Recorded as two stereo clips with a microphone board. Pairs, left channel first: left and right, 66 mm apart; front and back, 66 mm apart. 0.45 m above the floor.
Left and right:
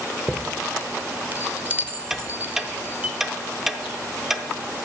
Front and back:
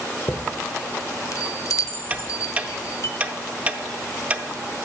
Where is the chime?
30° right, 0.6 m.